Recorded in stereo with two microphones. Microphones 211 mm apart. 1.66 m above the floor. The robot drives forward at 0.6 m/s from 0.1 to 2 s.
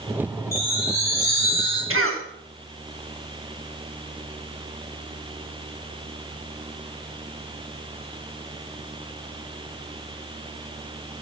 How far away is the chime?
About 8.5 m.